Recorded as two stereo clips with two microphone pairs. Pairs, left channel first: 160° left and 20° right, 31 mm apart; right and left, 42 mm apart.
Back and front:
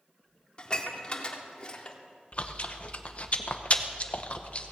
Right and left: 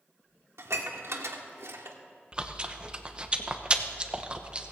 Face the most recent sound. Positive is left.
turn(degrees=140)